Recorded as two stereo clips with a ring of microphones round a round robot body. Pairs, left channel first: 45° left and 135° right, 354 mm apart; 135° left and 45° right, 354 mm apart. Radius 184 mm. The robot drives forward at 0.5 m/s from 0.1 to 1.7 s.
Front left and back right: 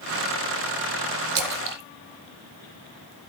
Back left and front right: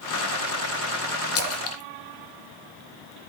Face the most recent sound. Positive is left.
turn(degrees=-175)